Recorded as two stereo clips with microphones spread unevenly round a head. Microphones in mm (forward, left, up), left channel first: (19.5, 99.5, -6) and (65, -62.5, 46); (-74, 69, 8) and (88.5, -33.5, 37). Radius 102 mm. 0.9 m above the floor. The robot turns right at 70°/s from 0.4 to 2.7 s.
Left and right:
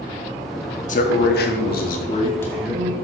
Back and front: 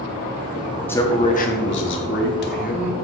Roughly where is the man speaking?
Left.